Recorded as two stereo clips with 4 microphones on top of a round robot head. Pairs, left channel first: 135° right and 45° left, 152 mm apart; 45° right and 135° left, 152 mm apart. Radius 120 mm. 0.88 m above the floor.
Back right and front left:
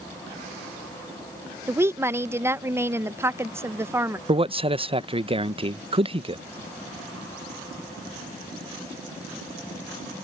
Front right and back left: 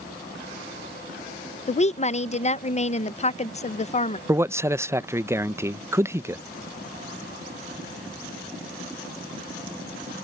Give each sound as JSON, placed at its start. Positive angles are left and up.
{"t": 1.7, "sound": "a woman speaking", "azimuth_deg": -25}
{"t": 4.3, "sound": "a man speaking", "azimuth_deg": 70}